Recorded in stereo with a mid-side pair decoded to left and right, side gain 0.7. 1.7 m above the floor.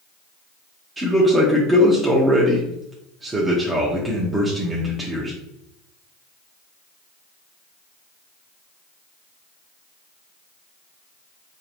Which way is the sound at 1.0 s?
20° right.